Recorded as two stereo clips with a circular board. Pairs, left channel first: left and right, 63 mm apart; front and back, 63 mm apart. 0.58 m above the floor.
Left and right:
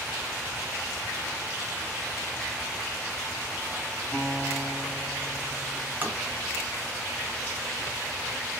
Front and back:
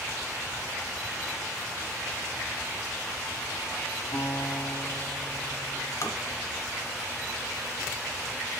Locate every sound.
4.1 s a guitar: 5° right, 3 m
6.0 s tapping: 30° right, 1.2 m